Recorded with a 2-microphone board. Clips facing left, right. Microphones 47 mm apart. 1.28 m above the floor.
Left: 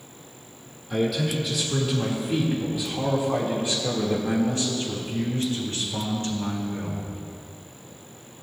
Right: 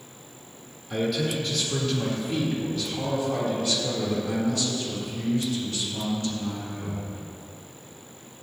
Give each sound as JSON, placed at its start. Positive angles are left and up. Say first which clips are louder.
{"t": 0.9, "sound": "a man speaking", "louder": "left 1 dB", "side_deg": 0, "distance_m": 3.0}